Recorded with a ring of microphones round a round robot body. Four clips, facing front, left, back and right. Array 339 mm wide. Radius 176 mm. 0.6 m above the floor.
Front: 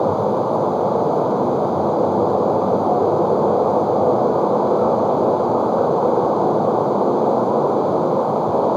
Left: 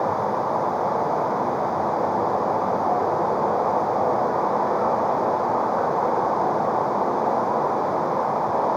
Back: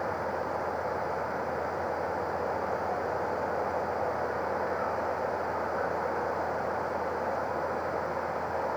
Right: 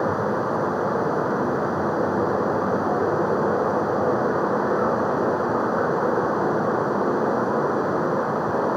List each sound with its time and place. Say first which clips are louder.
0.0 s running water: even, front 14 dB; 25° right